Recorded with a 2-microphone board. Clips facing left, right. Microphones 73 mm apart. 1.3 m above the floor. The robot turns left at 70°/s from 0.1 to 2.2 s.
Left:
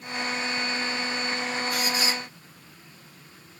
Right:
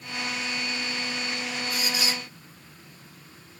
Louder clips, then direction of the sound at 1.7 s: Left 2 dB; 60° left.